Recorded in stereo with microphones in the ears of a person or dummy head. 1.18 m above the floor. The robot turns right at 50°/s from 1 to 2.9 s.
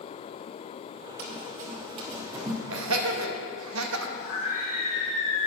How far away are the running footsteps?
About 1.8 m.